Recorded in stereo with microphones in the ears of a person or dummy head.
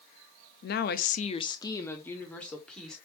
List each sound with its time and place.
0.6 s a woman speaking: 45° left (ahead or behind), 0.6 m; by 3.0 s centre (ahead or behind), 1.6 m